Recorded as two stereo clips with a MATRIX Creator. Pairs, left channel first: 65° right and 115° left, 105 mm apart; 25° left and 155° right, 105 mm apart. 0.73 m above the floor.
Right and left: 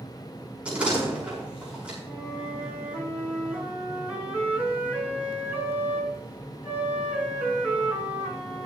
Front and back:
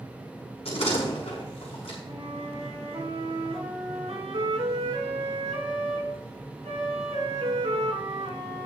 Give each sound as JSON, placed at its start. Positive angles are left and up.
{"t": 0.7, "sound": "a door slam", "azimuth_deg": 35, "distance_m": 6.0}
{"t": 2.0, "sound": "a flute", "azimuth_deg": -170, "distance_m": 3.5}